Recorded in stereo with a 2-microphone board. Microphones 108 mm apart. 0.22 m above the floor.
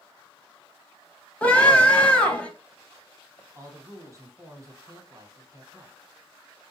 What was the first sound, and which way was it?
A scream, 15° left (ahead or behind).